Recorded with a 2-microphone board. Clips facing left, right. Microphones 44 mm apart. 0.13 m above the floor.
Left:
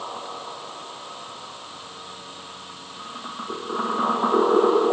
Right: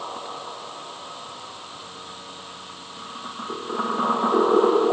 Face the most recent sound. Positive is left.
No sound to turn to.